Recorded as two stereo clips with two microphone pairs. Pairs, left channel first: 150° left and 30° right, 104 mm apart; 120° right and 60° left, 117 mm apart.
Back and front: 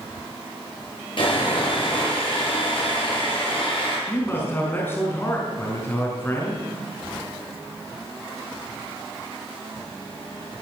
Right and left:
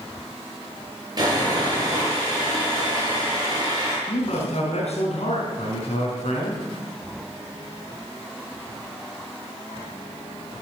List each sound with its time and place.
1.2 s sawing: 115° left, 8 m
4.1 s a man speaking: 140° right, 4.5 m